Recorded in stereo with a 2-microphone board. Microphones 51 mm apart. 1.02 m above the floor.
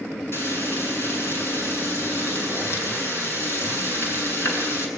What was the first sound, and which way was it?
Frying, 55° left (ahead or behind).